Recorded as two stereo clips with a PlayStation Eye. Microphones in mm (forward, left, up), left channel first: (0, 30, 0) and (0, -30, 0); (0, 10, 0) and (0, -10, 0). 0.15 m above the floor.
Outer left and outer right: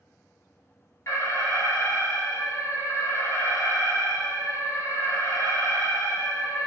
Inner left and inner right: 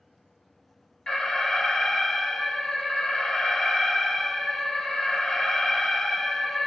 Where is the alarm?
50° left (ahead or behind), 1.6 m.